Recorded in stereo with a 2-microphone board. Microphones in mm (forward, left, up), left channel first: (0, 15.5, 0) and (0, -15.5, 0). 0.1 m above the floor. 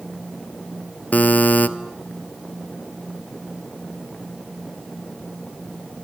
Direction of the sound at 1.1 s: 50° left (ahead or behind).